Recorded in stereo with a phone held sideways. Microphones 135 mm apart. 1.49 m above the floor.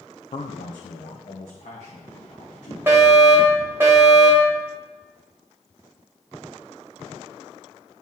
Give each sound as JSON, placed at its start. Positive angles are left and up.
{"t": 0.3, "sound": "a man speaking", "side_deg": 70, "distance_m": 0.6}
{"t": 2.9, "sound": "a fire alarm", "side_deg": -20, "distance_m": 3.0}